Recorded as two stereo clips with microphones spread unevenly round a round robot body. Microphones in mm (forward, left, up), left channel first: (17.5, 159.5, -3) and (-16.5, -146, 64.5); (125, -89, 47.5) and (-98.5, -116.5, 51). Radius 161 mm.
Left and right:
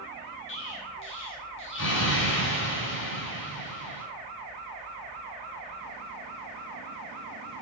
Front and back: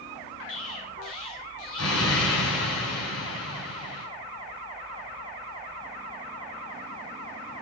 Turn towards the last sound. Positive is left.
turn(degrees=35)